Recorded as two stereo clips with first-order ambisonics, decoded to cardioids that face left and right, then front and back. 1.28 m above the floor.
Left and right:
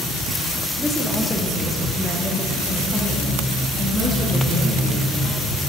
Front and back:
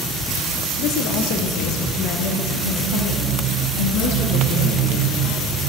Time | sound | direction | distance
0.8 | a woman speaking | 5° left | 0.9 m